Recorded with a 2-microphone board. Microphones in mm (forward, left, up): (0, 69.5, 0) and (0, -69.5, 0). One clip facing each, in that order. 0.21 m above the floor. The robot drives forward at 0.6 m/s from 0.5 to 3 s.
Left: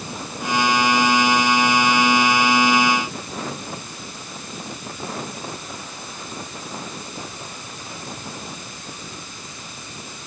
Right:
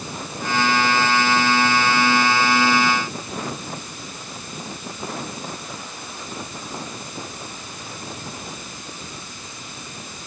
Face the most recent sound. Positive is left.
No sound to turn to.